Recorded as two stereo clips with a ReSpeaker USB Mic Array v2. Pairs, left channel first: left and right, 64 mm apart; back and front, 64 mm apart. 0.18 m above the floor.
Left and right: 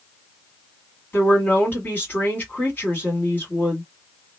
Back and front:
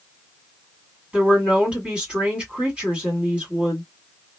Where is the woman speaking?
55° left, 1.9 m.